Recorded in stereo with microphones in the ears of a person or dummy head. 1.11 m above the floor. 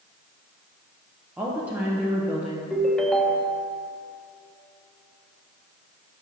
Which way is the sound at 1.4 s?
5° right (ahead or behind).